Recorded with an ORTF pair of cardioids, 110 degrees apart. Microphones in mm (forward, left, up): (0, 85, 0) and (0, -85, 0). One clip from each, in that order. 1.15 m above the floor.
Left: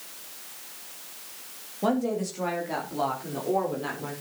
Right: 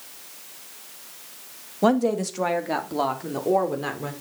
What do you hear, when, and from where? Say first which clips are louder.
1.8 s a woman speaking: right 6 dB; 45° right, 2 m; by 4.1 s 40° right, 4.5 m